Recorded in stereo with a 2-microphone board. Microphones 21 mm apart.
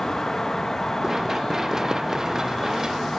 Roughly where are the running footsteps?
Right.